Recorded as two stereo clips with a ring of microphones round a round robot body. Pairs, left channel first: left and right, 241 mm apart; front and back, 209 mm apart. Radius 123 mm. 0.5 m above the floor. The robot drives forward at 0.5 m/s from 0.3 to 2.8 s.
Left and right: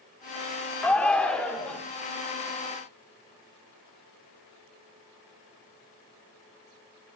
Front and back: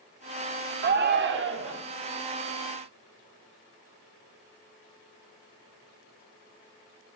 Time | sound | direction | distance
0.8 | a shout | 175° left | 0.8 m